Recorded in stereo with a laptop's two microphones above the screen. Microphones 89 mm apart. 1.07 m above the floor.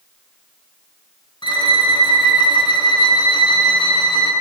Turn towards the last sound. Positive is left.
turn(degrees=65)  # may be behind; listen again after turning